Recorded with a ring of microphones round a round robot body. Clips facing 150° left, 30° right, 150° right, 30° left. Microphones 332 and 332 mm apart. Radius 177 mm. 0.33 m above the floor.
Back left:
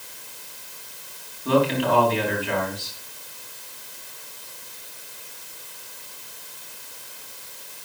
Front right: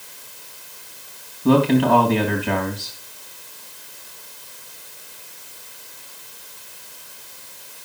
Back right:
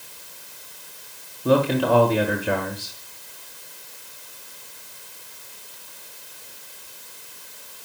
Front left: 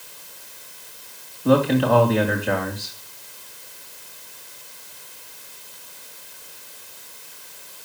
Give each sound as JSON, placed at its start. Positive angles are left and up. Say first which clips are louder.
{"t": 1.4, "sound": "a man speaking", "louder": "front right 6 dB, front left 2 dB", "azimuth_deg": -65, "distance_m": 3.5}